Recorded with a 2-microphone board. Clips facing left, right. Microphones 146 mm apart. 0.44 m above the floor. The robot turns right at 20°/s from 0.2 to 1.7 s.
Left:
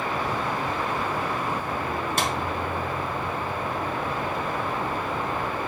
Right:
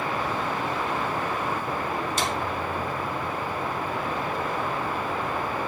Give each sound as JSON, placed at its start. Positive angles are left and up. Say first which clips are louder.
{"t": 2.2, "sound": "a clap", "louder": "left 3 dB", "side_deg": 55, "distance_m": 4.0}